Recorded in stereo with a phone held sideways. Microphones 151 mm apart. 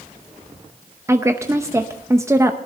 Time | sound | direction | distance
1.1 | a woman speaking | 20° right (ahead or behind) | 0.7 m